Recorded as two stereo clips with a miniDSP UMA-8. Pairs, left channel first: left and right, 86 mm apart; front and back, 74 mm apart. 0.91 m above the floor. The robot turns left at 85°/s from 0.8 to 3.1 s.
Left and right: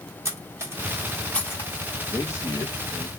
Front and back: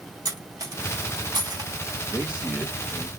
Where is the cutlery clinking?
150° right, 1.2 m; by 1.7 s 135° left, 1.2 m.